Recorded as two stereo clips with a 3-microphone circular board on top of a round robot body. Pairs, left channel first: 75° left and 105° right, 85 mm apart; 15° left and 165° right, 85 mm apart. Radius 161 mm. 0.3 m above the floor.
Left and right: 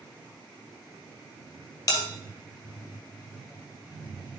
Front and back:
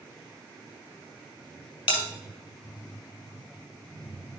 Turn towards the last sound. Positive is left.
turn(degrees=25)